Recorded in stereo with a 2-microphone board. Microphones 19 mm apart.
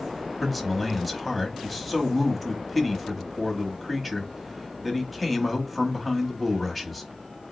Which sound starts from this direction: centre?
A man speaking, at 0.4 s.